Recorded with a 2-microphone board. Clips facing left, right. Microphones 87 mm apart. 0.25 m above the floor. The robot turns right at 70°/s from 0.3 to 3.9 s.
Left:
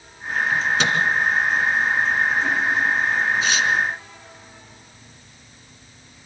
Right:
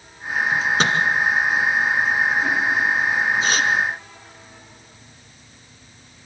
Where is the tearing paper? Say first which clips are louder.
Right 1 dB; 35° right (ahead or behind), 1.8 m; by 3.7 s 55° right (ahead or behind), 1.8 m.